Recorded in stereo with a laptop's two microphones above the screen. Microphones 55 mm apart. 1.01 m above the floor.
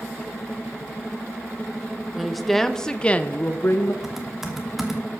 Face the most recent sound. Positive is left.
turn(degrees=-5)  # may be behind; listen again after turning